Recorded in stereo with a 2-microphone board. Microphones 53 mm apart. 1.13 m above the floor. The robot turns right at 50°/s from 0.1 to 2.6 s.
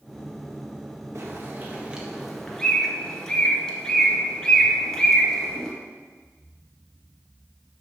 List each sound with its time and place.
1.1 s a bird: 55° right (ahead or behind), 1.4 m; by 5.7 s 10° left (ahead or behind), 1.4 m